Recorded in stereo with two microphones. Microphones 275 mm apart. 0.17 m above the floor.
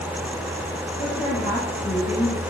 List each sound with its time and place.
1.0 s a woman speaking: 20° left (ahead or behind), 4.5 m